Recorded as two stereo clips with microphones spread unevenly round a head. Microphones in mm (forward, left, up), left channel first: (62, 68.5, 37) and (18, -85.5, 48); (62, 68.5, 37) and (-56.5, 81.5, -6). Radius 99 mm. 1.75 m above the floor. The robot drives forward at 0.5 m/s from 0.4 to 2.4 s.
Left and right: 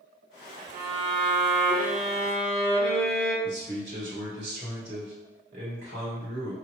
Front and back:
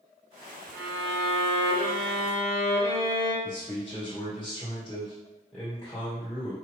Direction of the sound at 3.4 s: 95° right.